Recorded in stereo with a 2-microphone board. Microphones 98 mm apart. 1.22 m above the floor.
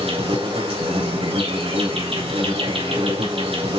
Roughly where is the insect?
Right.